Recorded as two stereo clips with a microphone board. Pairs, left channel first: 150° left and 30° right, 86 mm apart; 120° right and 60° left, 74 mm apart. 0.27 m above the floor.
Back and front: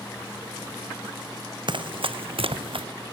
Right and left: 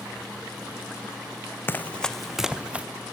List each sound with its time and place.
1.7 s running footsteps: 60° right, 0.8 m; by 2.9 s 15° right, 1.2 m